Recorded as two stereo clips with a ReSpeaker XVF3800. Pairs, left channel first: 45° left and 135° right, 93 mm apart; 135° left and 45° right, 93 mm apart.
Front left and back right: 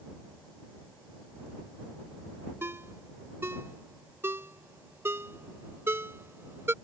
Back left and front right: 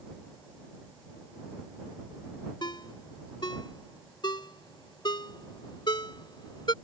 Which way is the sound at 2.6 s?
165° left.